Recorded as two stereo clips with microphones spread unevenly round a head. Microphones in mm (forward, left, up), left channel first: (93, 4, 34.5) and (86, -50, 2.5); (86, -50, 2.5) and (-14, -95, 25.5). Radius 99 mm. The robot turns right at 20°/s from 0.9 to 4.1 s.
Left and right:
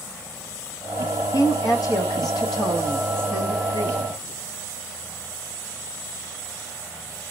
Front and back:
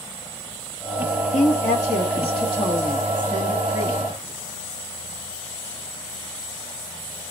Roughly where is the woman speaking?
Ahead left.